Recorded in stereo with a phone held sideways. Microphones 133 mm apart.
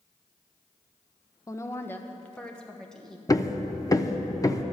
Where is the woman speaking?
25° left (ahead or behind), 0.6 m; by 3.2 s 5° left (ahead or behind), 1.6 m.